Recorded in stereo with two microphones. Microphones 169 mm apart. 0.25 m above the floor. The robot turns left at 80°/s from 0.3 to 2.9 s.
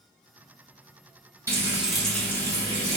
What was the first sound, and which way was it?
Frying, 15° right (ahead or behind).